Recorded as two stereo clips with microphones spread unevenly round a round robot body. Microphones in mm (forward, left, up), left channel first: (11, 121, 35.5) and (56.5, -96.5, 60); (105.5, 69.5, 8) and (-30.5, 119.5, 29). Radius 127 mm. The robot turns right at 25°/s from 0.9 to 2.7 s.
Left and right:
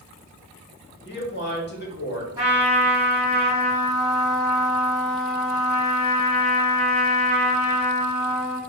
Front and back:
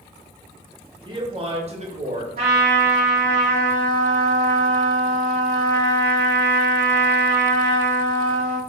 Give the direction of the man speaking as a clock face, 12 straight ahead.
9 o'clock.